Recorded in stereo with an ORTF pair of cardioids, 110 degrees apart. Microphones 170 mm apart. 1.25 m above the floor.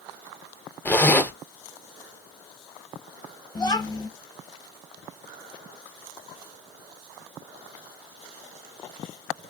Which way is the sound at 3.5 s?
25° left.